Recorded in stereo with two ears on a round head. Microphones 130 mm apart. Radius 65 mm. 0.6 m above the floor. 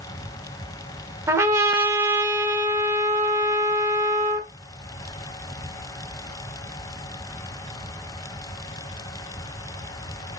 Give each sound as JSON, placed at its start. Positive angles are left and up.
{"t": 1.3, "sound": "a trumpet", "side_deg": -20, "distance_m": 0.7}